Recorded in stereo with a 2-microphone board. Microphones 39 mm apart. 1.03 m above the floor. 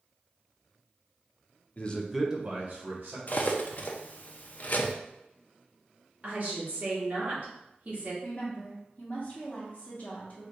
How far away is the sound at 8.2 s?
About 1.1 m.